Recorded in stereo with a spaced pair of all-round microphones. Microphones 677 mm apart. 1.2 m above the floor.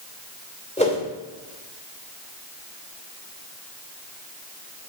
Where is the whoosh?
10° left (ahead or behind), 2.5 m.